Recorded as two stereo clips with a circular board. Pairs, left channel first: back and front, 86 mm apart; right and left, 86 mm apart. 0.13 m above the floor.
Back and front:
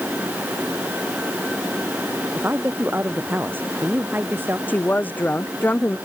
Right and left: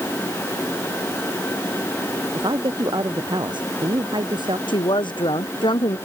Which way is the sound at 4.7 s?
110° right.